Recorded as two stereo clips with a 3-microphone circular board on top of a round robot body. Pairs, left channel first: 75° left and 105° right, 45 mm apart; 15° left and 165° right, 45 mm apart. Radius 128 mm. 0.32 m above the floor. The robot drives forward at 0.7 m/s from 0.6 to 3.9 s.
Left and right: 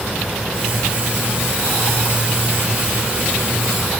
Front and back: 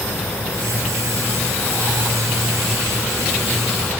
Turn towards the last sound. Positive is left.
No sound to turn to.